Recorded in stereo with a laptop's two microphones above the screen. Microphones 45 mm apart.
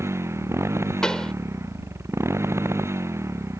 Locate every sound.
0.0 s a motorcycle: 85° right
1.0 s a pop: 15° left (ahead or behind)